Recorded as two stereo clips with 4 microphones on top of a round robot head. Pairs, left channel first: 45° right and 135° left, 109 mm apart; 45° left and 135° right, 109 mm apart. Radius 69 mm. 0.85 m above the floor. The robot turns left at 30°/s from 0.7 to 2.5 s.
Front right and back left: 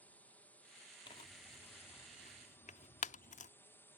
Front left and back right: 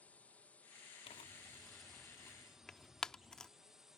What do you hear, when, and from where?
0.0 s a drone: 5° right; by 4.0 s 55° right
1.1 s tearing paper: 5° left; by 3.5 s 40° right